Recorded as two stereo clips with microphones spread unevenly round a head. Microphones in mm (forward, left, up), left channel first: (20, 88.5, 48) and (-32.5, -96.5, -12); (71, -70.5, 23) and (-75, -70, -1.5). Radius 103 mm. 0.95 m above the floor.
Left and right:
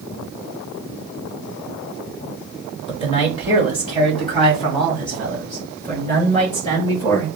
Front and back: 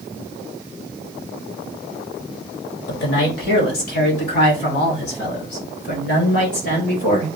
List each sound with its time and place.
2.9 s a man speaking: 10° left, 1.6 m; by 7.3 s 5° left, 4 m